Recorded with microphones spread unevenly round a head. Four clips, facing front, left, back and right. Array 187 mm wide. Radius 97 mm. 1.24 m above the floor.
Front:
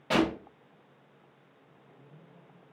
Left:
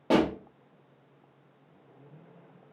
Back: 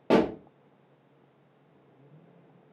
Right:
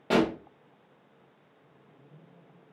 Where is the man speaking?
No man speaking in this recording.